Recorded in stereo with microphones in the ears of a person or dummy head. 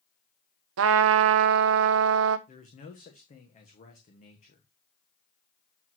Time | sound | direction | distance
0.8 | a trumpet | 65° right (ahead or behind) | 0.6 m
2.5 | a man speaking | 35° left (ahead or behind) | 1.3 m